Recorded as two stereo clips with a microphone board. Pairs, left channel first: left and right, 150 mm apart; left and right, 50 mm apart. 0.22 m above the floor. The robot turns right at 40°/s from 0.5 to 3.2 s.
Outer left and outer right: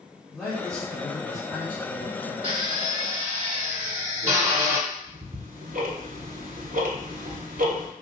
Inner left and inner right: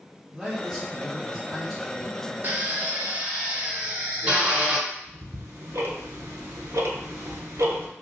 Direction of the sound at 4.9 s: 70° right (ahead or behind).